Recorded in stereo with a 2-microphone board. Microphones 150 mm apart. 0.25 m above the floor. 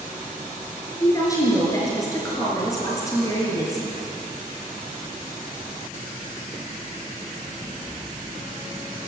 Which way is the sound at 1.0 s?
20° left (ahead or behind).